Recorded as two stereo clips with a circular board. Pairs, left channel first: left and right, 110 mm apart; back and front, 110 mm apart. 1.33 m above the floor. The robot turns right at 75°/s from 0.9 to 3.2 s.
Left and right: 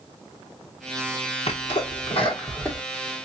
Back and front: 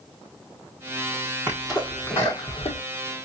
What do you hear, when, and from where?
1.5 s a sneeze: 70° left, 1.2 m; by 2.8 s 170° left, 1.2 m